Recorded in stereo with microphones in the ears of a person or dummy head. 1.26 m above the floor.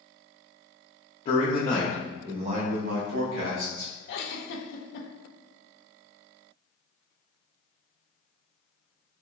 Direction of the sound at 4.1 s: 65° left (ahead or behind).